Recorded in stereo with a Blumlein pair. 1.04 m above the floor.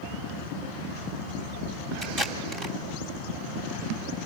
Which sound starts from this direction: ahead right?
Tape being pulled, at 2.0 s.